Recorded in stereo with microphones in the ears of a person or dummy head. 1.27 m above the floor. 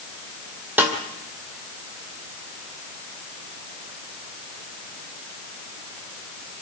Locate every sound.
0.8 s a snare drum: 10° right (ahead or behind), 2 m